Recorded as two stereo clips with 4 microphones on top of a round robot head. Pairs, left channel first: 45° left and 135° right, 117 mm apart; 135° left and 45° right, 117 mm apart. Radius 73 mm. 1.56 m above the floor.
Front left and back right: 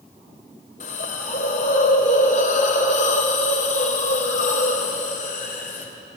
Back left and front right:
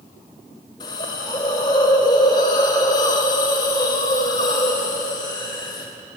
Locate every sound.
0.8 s a hiss: 75° left, 3 m